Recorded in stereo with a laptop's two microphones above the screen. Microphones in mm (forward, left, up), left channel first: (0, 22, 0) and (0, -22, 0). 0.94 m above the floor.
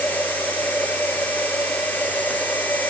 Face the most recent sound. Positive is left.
turn(degrees=40)  # may be behind; listen again after turning